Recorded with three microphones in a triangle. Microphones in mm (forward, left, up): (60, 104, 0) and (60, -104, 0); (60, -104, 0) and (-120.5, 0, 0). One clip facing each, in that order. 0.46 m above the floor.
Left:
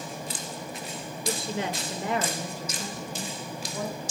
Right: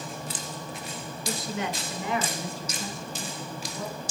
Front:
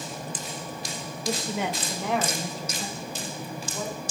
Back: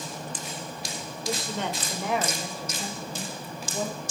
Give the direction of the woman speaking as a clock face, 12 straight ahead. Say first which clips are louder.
Left 1 dB, front 2 dB; 11 o'clock.